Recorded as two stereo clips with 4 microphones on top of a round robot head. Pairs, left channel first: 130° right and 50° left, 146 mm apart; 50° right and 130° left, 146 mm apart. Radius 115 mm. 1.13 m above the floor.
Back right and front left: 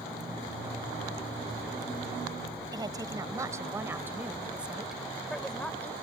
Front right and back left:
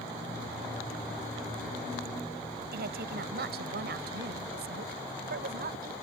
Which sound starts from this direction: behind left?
A woman speaking, at 2.7 s.